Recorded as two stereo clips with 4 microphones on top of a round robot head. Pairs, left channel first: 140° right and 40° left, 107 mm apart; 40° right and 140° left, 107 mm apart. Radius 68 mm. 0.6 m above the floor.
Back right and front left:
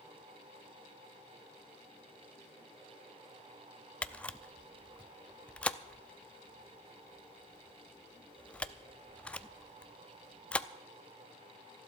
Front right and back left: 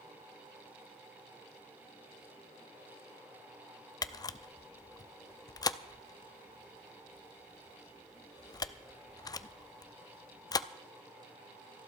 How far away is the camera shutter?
About 0.6 m.